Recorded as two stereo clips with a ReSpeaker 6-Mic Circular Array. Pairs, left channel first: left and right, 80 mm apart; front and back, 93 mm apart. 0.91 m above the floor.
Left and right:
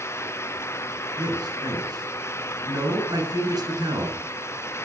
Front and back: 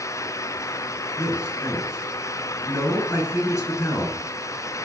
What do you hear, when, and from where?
1.2 s a man speaking: 60° right, 7.5 m